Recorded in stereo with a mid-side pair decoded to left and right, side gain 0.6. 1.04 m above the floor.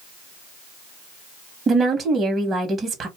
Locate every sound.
1.7 s a woman speaking: 30° right, 1.1 m